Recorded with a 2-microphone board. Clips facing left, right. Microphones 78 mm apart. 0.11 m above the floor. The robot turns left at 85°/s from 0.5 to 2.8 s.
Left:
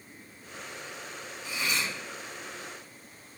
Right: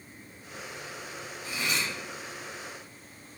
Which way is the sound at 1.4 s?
60° right.